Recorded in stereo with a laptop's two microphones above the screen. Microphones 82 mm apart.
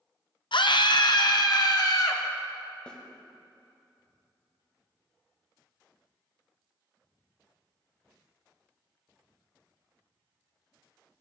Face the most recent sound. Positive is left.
turn(degrees=10)  # may be behind; listen again after turning